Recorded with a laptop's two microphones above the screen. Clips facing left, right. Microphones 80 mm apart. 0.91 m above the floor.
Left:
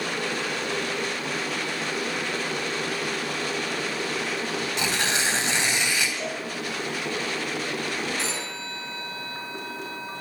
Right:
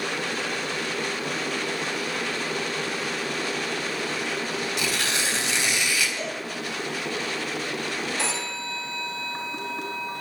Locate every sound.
4.8 s tearing paper: 25° left (ahead or behind), 4.5 m
6.2 s a cowbell: 45° right (ahead or behind), 8 m
8.2 s a phone ringing: 70° right (ahead or behind), 3.5 m